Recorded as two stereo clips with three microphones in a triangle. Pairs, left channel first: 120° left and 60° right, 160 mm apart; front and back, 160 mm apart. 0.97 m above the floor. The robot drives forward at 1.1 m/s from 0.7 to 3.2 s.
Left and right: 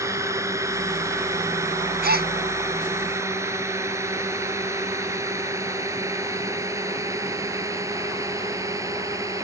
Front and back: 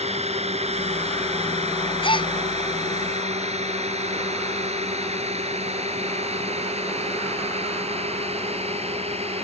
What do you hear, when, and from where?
0.0 s a drone: 130° right
2.0 s a gasp: 55° right; by 2.3 s 60° right